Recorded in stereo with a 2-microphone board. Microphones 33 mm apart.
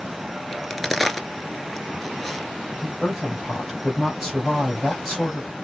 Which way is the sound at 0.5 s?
5° left (ahead or behind).